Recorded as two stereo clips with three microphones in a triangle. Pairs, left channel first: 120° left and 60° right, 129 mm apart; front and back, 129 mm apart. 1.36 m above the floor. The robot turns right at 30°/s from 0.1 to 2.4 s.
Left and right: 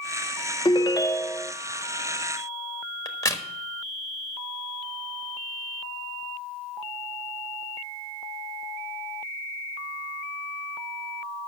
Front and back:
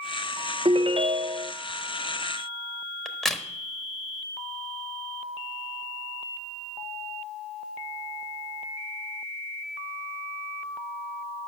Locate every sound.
0.7 s a ringtone: 160° left, 0.5 m; by 1.5 s 175° right, 0.5 m
3.0 s a crack: 85° left, 1.2 m